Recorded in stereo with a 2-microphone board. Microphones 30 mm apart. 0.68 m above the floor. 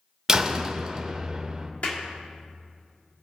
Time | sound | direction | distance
0.3 | a door slam | 20° right (ahead or behind) | 0.9 m
1.8 | a clap | 45° left (ahead or behind) | 1.5 m